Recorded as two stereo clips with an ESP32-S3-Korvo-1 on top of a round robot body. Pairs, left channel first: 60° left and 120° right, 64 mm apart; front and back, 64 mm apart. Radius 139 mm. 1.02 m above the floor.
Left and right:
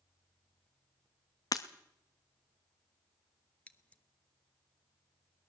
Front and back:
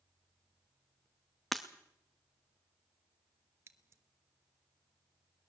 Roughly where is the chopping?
No chopping in this recording.